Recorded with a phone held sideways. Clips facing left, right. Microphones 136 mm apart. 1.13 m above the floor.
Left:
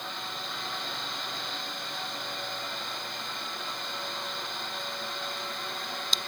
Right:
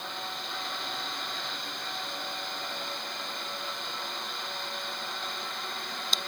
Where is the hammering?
I don't hear hammering.